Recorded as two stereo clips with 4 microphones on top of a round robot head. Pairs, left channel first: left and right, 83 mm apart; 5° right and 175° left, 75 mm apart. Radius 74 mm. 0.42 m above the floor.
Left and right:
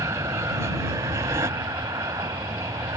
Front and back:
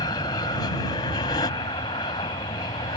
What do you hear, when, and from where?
0.0 s an aircraft: 30° right